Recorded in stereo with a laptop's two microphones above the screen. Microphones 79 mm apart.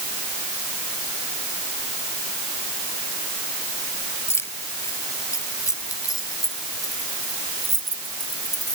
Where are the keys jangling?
35° left (ahead or behind); by 8.8 s 60° left (ahead or behind).